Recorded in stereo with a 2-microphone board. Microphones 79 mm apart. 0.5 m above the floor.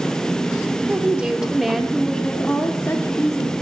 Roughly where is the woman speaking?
Centre.